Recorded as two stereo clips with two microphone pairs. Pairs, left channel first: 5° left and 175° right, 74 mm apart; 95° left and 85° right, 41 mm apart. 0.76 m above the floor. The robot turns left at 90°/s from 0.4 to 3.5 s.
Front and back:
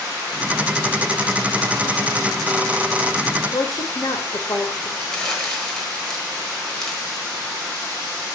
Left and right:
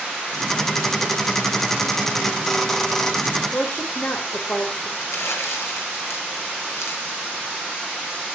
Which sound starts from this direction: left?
Crumpling, at 5.0 s.